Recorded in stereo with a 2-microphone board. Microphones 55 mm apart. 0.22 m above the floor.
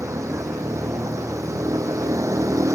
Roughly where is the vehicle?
Right.